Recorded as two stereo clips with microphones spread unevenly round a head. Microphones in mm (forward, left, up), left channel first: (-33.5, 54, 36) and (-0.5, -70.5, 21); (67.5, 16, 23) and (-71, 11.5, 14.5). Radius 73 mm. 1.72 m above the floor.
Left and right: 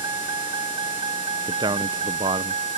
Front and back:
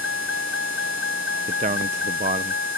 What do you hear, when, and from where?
0.0 s a vehicle: 10° right; by 2.8 s 25° right
1.5 s a man speaking: 135° right